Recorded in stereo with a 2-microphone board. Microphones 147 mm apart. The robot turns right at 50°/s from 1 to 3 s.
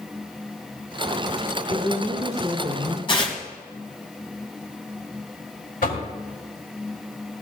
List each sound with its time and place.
1.7 s a woman speaking: 120° left, 5 m; by 3.0 s straight behind, 5 m
3.1 s tearing paper: 35° left (ahead or behind), 2 m
5.8 s knocking: 75° left (ahead or behind), 2.5 m